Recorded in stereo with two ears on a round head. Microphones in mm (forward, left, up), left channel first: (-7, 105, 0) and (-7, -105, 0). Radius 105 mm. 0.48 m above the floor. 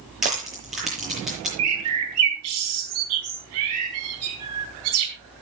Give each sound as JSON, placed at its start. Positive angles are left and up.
{"t": 0.2, "sound": "crushing", "side_deg": 0, "distance_m": 8.0}
{"t": 1.6, "sound": "a bird", "side_deg": -70, "distance_m": 3.5}